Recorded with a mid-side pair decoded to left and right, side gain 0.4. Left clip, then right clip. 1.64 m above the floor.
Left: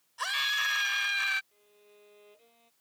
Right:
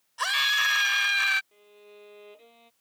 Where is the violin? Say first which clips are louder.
Right 9 dB; 60° right.